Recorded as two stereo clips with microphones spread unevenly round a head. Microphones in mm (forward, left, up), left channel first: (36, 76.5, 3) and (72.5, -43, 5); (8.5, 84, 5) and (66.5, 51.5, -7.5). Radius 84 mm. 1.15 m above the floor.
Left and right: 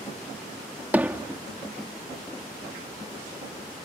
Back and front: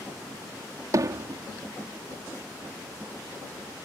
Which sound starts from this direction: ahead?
Hammering, at 0.9 s.